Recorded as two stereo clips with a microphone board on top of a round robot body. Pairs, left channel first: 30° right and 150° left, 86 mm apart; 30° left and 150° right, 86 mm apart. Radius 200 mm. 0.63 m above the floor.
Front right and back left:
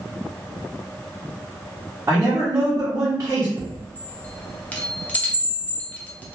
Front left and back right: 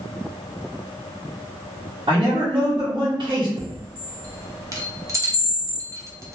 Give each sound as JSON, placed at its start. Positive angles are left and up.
{"t": 2.1, "sound": "a man speaking", "azimuth_deg": -155, "distance_m": 1.1}
{"t": 3.6, "sound": "a chime", "azimuth_deg": -100, "distance_m": 0.8}